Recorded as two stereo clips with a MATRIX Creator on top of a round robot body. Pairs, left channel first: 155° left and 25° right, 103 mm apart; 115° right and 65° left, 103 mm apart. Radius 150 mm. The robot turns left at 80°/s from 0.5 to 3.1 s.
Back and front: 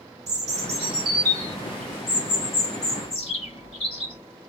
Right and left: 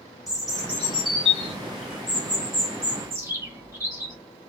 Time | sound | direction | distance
0.3 | a bird | 20° right | 2.5 m